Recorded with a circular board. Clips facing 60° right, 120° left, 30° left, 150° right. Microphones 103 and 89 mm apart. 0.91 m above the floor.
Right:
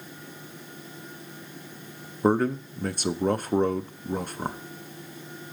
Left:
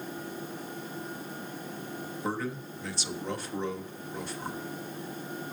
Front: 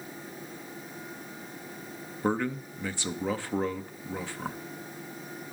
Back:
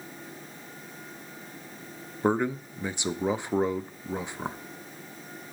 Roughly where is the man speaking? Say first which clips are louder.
Right 12 dB, back 3 dB; right.